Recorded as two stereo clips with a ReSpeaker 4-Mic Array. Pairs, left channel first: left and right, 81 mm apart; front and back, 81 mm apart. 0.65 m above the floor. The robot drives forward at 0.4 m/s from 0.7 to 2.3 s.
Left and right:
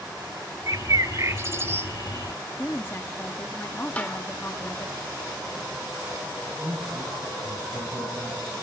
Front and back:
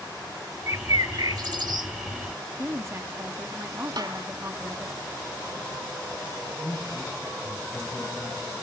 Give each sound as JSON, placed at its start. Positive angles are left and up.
{"t": 0.7, "sound": "a bird", "azimuth_deg": -130, "distance_m": 0.7}
{"t": 2.6, "sound": "a woman speaking", "azimuth_deg": 140, "distance_m": 0.8}
{"t": 4.0, "sound": "a snare drum", "azimuth_deg": 160, "distance_m": 2.5}
{"t": 6.6, "sound": "a man speaking", "azimuth_deg": -70, "distance_m": 5.5}